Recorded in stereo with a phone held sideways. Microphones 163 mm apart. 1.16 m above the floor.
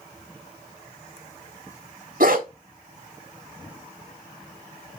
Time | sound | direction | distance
2.2 | a dog barking | 65° right (ahead or behind) | 1.3 m